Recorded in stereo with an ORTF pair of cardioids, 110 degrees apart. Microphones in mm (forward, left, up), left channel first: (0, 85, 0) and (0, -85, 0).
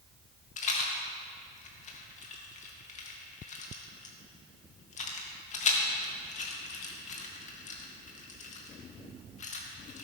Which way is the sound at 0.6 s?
45° left.